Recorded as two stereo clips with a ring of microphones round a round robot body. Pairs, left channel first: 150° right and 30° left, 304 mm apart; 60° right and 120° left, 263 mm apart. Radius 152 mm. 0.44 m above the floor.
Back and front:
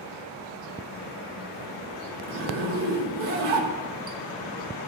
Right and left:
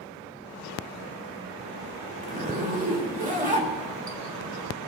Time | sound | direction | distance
2.2 | a zipper | 65° left | 1.8 m